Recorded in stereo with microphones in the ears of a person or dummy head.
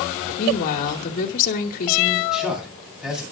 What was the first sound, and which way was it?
A woman speaking, 50° left (ahead or behind).